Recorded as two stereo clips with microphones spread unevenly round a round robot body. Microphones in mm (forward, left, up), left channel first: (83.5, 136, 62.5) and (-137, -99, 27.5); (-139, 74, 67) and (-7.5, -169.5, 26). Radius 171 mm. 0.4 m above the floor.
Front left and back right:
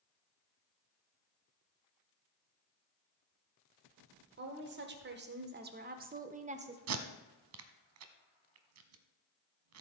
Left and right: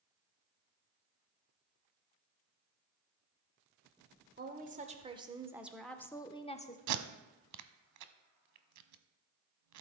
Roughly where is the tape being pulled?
Right.